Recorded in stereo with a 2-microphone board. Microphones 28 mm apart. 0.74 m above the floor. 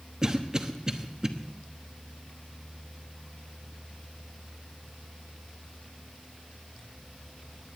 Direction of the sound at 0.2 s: 20° right (ahead or behind).